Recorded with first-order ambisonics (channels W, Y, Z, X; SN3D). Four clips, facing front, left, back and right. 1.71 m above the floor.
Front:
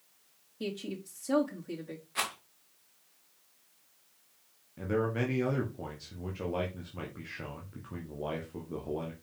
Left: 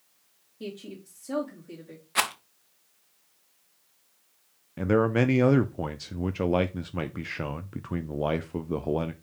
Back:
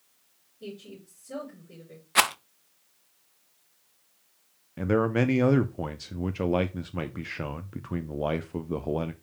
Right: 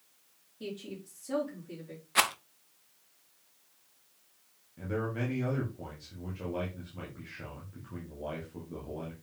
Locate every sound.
0.6 s a woman speaking: 20° left, 2.5 m
2.1 s a rattle: straight behind, 0.6 m
4.8 s a man speaking: 125° left, 0.6 m